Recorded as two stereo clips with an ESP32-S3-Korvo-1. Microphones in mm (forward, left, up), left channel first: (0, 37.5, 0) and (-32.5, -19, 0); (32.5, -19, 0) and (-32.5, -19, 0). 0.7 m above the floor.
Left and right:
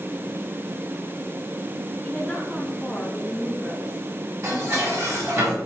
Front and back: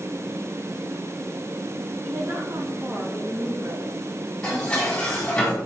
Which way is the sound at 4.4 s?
75° right.